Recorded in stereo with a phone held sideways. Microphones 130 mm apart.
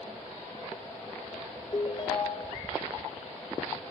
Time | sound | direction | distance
1.7 | a ringtone | 35° left (ahead or behind) | 0.5 m